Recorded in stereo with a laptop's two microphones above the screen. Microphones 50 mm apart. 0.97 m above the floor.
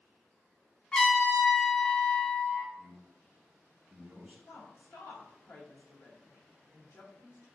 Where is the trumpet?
20° left (ahead or behind), 1.1 m.